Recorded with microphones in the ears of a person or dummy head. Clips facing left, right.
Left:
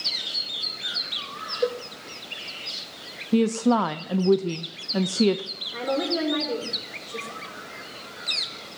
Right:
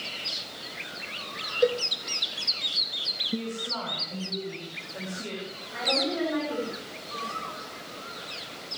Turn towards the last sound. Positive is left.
turn(degrees=45)  # may be behind; listen again after turning